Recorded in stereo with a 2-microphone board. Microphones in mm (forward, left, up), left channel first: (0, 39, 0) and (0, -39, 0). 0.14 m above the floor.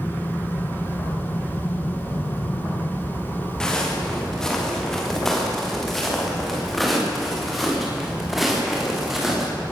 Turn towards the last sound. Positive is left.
turn(degrees=-5)  # may be behind; listen again after turning